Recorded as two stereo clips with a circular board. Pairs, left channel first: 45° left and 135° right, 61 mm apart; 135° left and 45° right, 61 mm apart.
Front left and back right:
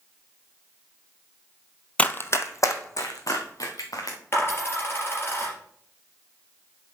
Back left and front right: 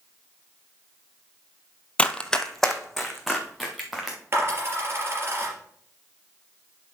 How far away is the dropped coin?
About 3.5 m.